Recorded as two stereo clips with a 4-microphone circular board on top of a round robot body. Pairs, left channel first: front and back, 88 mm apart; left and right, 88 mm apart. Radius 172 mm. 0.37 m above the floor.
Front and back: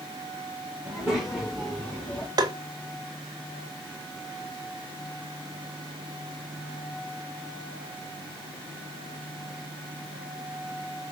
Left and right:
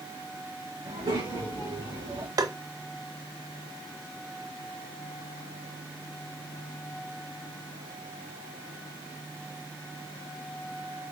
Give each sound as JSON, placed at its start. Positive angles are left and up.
{"t": 0.8, "sound": "a child speaking", "azimuth_deg": -100, "distance_m": 2.5}
{"t": 2.4, "sound": "tapping", "azimuth_deg": -135, "distance_m": 0.6}